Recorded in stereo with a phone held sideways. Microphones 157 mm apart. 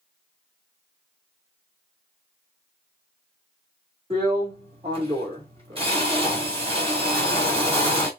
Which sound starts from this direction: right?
A drill, at 4.1 s.